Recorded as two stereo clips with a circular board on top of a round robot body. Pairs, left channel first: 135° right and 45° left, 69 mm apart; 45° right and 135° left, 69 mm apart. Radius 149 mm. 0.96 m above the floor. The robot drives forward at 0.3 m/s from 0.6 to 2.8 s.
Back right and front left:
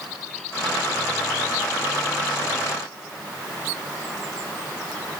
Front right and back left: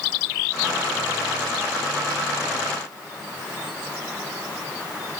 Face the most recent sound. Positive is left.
No sound to turn to.